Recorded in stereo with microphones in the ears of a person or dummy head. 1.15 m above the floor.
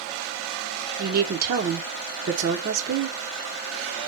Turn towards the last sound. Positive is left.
turn(degrees=-50)  # may be behind; listen again after turning